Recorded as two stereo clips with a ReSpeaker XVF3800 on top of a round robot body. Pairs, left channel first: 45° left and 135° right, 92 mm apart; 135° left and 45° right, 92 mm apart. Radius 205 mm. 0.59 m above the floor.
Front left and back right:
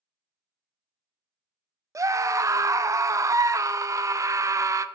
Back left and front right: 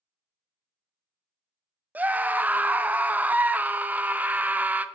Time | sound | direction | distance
1.9 | a scream | 105° right | 0.6 m